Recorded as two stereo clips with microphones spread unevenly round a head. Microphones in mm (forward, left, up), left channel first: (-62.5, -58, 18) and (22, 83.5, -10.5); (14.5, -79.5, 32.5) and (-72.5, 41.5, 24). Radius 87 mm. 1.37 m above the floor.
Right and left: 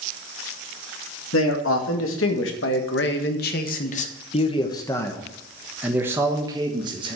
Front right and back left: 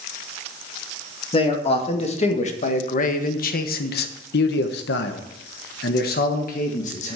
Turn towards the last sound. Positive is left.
turn(degrees=-5)